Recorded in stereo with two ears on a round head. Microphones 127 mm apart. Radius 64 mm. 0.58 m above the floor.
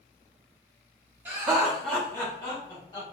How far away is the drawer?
No drawer in this recording.